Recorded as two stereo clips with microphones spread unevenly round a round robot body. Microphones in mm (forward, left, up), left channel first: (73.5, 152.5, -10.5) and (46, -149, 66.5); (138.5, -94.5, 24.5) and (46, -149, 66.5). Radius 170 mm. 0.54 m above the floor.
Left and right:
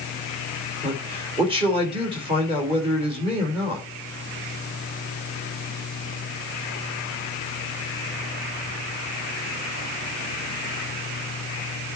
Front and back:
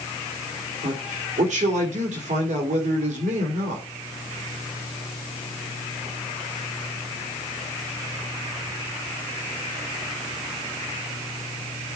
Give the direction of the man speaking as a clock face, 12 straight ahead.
6 o'clock.